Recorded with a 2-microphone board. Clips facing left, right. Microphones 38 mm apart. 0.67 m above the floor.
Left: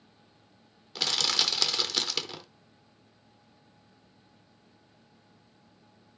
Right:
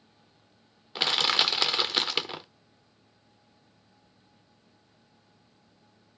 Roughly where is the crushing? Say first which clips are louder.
Right 4 dB; right.